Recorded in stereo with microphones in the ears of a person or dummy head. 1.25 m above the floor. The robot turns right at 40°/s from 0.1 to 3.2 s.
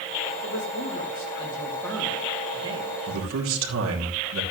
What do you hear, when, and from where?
0.4 s a man speaking: 115° left, 3 m; by 3.0 s 140° right, 3 m
3.1 s a man speaking: 80° right, 3 m; by 4.4 s 75° right (ahead or behind), 3 m